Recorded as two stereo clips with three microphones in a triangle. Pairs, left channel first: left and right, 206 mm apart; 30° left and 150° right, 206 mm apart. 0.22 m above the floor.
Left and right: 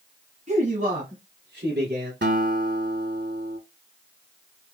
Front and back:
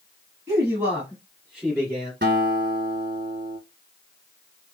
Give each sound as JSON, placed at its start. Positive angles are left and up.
{"t": 0.5, "sound": "a man speaking", "azimuth_deg": -85, "distance_m": 1.2}
{"t": 2.2, "sound": "a guitar", "azimuth_deg": -120, "distance_m": 0.8}